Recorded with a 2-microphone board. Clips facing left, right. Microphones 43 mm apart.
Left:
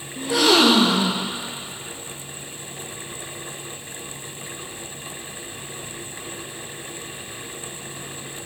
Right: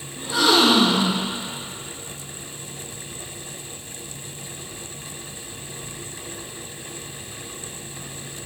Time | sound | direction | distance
0.2 | a gasp | 65° left (ahead or behind) | 1.8 m